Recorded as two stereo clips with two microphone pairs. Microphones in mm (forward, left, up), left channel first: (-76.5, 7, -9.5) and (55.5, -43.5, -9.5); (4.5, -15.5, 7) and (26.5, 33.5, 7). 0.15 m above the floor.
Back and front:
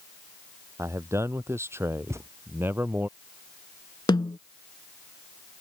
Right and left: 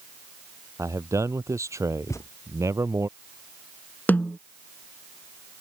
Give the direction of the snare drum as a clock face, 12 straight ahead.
5 o'clock.